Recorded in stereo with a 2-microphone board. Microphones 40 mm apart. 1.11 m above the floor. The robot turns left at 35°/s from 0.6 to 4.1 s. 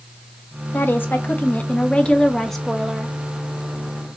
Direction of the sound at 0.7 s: 70° left.